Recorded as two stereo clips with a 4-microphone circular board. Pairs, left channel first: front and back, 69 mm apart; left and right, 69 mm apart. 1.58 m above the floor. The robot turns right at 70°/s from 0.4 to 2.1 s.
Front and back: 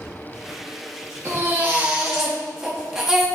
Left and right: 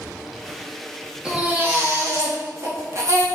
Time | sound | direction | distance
1.2 | a baby crying | 160° right | 1.2 m